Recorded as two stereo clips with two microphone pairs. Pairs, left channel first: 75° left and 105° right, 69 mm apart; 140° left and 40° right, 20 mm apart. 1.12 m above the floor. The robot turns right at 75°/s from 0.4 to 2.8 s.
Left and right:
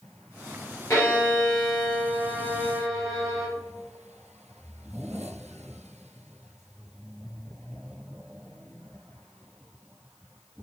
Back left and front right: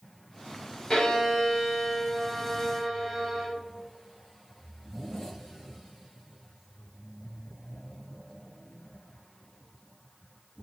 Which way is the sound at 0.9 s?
110° left.